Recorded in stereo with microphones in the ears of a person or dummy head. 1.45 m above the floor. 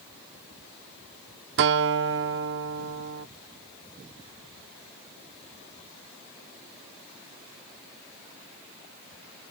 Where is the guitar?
60° right (ahead or behind).